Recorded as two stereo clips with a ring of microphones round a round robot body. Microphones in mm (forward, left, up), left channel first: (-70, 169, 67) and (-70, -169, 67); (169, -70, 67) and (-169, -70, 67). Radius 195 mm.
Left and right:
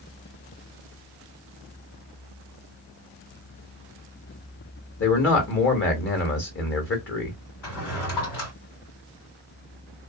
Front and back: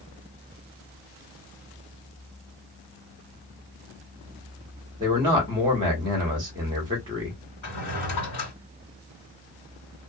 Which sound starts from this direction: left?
A man speaking, at 5.0 s.